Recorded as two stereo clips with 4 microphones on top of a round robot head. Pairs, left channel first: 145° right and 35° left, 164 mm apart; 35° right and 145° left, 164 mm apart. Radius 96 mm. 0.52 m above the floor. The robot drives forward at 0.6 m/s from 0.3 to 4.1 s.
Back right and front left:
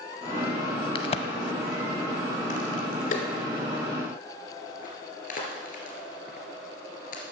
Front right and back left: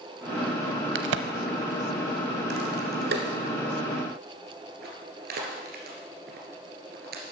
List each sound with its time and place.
0.9 s a crack: 160° left, 0.6 m; by 7.2 s 175° left, 2.5 m